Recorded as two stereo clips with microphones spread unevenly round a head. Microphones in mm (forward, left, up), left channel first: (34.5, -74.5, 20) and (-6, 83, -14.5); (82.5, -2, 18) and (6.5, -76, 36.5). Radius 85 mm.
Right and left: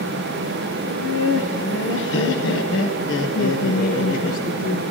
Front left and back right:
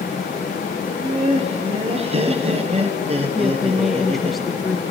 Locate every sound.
0.8 s laughter: 105° right, 1.3 m
3.4 s a woman speaking: 50° right, 0.7 m